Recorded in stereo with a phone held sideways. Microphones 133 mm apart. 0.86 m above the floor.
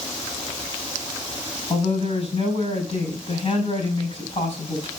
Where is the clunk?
No clunk in this recording.